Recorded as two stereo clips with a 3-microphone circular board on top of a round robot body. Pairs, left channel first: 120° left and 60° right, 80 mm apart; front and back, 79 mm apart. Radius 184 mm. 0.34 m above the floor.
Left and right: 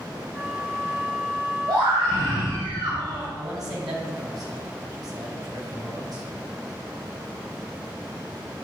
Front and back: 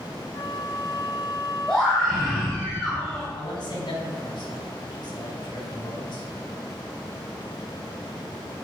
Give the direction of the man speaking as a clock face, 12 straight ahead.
1 o'clock.